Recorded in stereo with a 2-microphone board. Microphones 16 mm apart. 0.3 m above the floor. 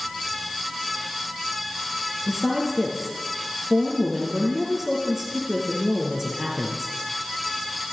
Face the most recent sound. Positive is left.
turn(degrees=-15)  # may be behind; listen again after turning